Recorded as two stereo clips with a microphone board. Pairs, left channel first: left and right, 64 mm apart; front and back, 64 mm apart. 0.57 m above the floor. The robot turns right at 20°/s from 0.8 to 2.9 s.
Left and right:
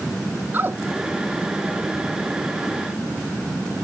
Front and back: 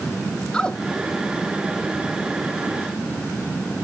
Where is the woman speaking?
70° right, 0.8 m; by 0.8 s 65° right, 0.8 m.